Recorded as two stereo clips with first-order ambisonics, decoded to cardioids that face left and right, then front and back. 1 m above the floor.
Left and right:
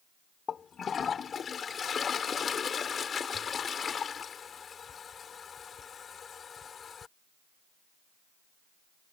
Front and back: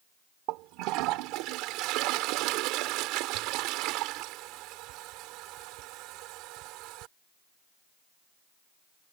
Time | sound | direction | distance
0.5 | a toilet flushing | 155° left | ?